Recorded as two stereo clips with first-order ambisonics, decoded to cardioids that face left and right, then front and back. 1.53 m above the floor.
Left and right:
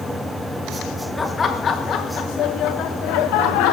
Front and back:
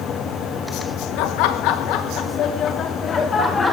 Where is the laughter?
15° left, 2.5 m; by 3.7 s 75° left, 3 m.